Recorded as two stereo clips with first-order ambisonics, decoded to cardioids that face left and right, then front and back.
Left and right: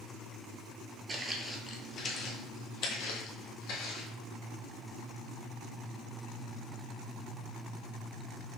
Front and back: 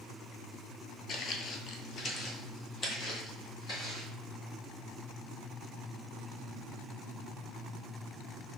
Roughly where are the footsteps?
Ahead right.